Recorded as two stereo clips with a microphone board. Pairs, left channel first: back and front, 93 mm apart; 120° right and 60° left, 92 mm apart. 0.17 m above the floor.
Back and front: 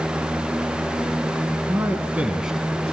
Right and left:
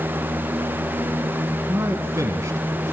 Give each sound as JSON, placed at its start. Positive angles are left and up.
{"t": 1.7, "sound": "a man speaking", "azimuth_deg": 30, "distance_m": 1.6}